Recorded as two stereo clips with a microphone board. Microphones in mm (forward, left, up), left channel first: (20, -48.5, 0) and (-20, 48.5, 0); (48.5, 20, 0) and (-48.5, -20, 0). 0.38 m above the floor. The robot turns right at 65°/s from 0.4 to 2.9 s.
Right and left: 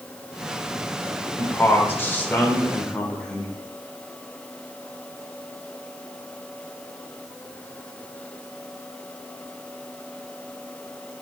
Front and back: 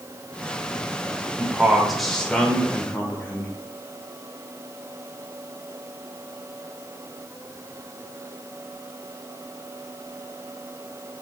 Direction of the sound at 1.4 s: 100° right.